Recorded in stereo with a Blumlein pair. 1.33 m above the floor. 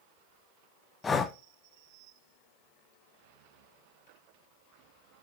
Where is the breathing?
15° left, 0.9 m.